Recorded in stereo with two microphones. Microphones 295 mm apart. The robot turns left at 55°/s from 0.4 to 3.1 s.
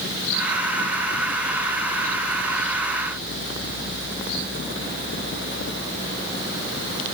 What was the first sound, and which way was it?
Only background noise.